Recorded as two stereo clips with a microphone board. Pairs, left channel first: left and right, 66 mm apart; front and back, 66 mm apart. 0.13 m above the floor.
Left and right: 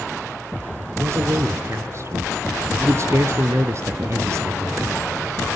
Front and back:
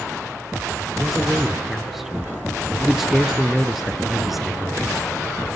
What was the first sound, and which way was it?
A man speaking, 95° right.